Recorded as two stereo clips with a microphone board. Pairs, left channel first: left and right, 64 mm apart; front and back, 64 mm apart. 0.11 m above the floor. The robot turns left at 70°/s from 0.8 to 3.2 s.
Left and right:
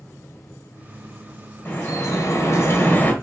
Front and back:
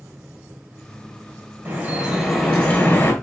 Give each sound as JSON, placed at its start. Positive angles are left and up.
{"t": 1.6, "sound": "dripping", "azimuth_deg": 140, "distance_m": 1.6}